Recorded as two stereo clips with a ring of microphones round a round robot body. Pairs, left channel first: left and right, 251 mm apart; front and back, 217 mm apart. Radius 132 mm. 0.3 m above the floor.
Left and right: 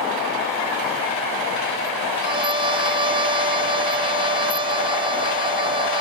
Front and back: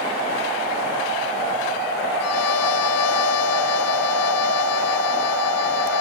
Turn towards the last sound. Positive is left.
turn(degrees=-20)